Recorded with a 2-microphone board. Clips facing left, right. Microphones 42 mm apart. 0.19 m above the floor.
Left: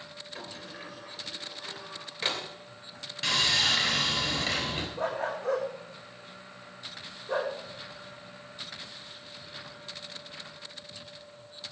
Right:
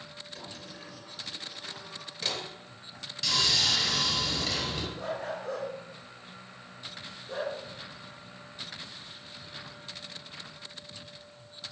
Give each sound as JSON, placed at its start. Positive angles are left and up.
{"t": 0.3, "sound": "a sliding door", "side_deg": 35, "distance_m": 3.0}
{"t": 3.2, "sound": "sawing", "side_deg": 40, "distance_m": 3.5}
{"t": 5.0, "sound": "a dog barking", "side_deg": 65, "distance_m": 5.0}